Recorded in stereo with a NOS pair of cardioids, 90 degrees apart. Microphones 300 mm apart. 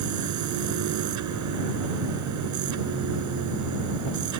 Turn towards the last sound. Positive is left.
turn(degrees=-70)